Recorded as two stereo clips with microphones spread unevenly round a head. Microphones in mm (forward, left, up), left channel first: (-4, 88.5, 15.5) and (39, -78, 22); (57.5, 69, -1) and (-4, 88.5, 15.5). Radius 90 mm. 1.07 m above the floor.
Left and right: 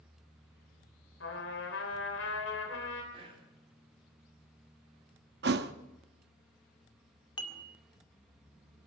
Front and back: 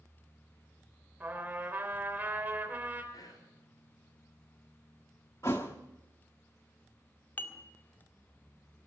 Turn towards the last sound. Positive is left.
turn(degrees=40)